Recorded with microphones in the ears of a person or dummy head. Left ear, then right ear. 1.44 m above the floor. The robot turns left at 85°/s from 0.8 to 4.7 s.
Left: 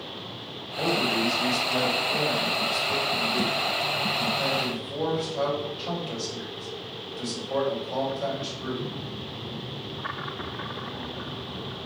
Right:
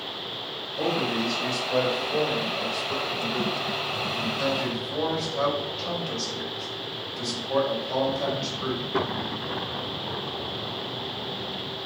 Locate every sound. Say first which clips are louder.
0.8 s a man speaking: left 2 dB; 95° right, 1.5 m; by 8.8 s 65° right, 1.5 m